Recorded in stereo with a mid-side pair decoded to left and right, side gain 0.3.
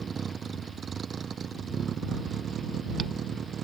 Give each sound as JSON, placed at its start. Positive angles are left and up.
{"t": 0.0, "sound": "a vehicle", "azimuth_deg": -60}